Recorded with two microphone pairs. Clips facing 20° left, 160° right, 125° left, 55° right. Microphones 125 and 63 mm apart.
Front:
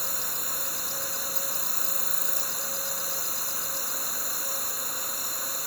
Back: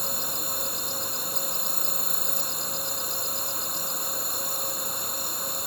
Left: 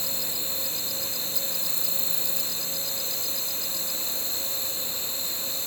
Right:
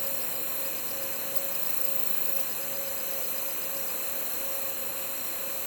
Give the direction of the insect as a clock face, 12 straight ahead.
8 o'clock.